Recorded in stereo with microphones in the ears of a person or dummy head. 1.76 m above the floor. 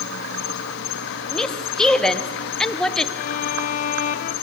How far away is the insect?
About 2 m.